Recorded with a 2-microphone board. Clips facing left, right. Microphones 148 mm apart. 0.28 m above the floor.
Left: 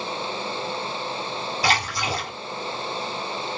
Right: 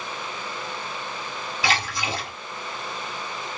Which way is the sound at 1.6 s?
35° left (ahead or behind).